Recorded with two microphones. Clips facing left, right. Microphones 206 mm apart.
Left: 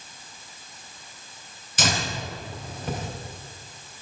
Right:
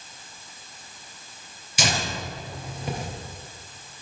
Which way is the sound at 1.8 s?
10° right (ahead or behind).